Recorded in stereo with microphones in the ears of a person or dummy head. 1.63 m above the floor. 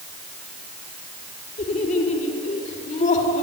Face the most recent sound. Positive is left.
turn(degrees=45)  # may be behind; listen again after turning